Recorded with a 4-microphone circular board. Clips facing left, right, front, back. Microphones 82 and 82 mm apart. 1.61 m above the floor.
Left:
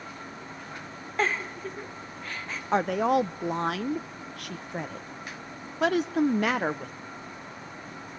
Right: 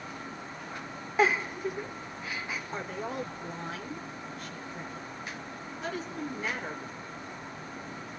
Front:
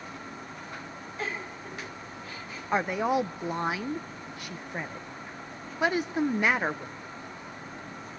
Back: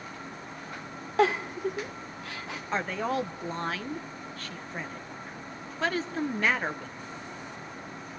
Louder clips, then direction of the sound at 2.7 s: Left 15 dB, front 4 dB; 75° left.